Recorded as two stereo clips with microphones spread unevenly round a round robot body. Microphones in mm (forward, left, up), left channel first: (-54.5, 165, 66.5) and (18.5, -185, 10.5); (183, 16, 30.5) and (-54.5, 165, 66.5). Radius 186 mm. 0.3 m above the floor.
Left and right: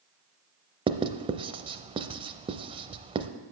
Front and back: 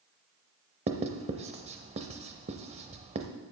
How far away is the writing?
About 0.6 m.